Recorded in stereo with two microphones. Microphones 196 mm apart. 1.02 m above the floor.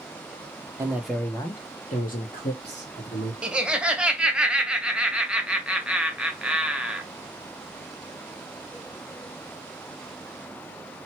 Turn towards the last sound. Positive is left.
turn(degrees=-5)  # may be behind; listen again after turning